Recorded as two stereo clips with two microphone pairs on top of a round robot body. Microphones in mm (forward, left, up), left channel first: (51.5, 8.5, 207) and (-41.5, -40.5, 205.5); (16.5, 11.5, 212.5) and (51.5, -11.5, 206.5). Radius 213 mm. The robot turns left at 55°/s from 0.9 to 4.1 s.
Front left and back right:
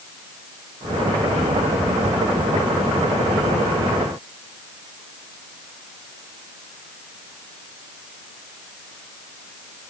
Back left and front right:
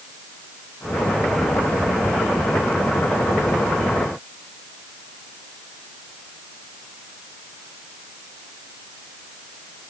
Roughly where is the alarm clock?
No alarm clock in this recording.